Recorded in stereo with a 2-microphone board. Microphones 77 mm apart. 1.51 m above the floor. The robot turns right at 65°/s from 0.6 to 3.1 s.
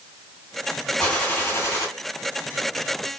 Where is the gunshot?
10° left, 2 m; by 1.9 s 65° left, 2 m.